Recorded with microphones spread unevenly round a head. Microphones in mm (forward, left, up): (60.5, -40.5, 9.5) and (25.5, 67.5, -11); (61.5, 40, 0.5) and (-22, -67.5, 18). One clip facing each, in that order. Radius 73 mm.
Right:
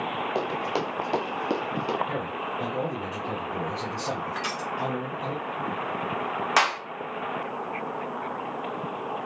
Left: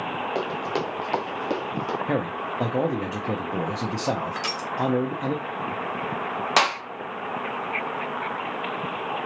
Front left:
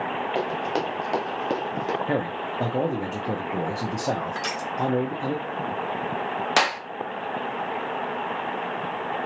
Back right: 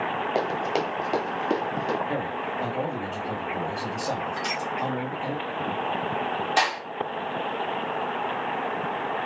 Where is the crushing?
55° left, 1.6 m.